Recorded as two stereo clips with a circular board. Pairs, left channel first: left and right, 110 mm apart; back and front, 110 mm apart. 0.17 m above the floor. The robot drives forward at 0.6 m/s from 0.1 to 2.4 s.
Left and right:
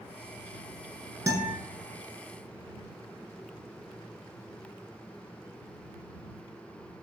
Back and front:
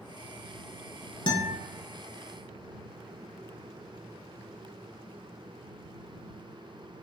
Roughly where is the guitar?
Behind right.